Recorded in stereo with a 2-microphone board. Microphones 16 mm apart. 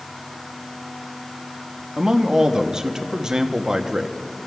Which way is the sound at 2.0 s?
40° right (ahead or behind).